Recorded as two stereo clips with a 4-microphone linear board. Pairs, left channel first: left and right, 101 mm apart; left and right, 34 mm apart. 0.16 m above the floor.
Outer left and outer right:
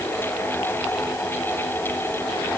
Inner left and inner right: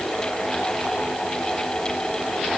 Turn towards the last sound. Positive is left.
No sound to turn to.